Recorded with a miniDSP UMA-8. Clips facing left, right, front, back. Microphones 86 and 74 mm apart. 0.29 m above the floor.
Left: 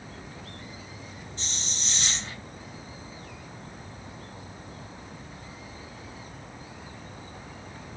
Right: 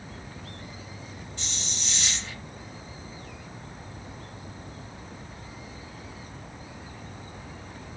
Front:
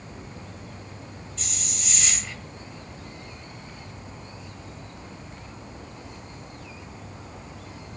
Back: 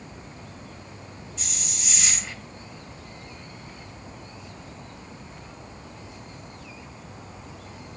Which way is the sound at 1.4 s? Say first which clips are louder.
Even, even; 100° left.